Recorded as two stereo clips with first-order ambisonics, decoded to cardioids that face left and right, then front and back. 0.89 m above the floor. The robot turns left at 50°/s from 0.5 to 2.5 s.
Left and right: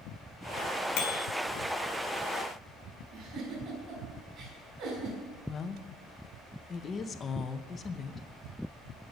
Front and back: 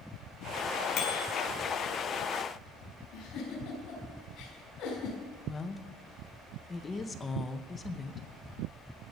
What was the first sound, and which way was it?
A bicycle bell, 45° left.